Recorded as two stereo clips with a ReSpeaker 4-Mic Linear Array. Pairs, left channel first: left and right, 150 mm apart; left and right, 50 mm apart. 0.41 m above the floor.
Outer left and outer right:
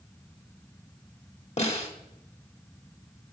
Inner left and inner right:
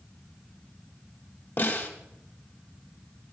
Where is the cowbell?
No cowbell in this recording.